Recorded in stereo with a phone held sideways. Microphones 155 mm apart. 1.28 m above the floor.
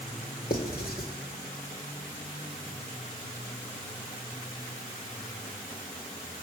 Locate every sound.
0.5 s writing: 75° left (ahead or behind), 2 m